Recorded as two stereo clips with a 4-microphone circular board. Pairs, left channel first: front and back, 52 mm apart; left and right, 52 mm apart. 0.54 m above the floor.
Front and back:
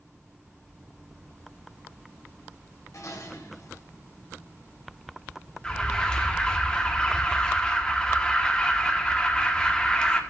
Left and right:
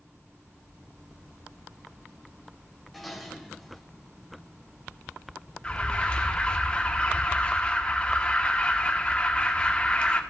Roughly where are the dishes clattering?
Ahead.